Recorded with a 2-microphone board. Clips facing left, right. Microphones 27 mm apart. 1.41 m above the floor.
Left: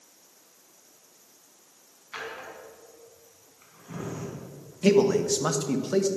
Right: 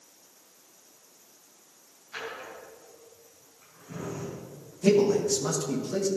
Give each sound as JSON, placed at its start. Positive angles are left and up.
{"t": 2.1, "sound": "a drawer", "side_deg": 30, "distance_m": 4.0}
{"t": 4.8, "sound": "a man speaking", "side_deg": 40, "distance_m": 1.5}